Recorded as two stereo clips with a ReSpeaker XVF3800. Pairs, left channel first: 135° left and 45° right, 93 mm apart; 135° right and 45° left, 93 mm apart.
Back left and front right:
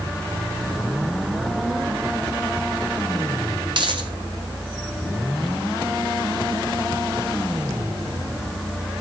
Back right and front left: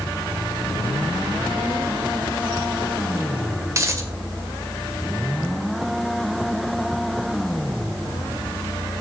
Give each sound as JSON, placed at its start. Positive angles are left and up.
{"t": 3.7, "sound": "a dropped coin", "azimuth_deg": -15, "distance_m": 2.0}